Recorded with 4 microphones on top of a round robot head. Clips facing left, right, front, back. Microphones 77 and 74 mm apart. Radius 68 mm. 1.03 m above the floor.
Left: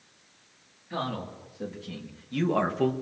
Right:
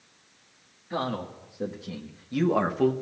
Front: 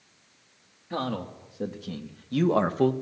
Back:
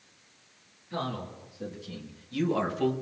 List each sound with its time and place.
0.9 s a man speaking: 20° right, 2 m; by 2.9 s straight ahead, 0.9 m